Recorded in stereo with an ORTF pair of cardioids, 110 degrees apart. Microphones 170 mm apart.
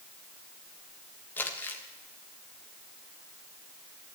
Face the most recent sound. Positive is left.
turn(degrees=10)